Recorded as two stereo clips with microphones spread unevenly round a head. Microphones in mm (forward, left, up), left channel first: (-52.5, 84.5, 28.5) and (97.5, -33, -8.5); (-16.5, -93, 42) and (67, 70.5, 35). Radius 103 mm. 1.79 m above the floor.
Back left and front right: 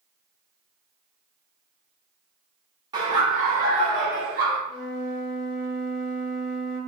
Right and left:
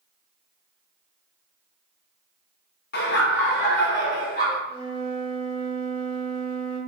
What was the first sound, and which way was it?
Laughter, 115° right.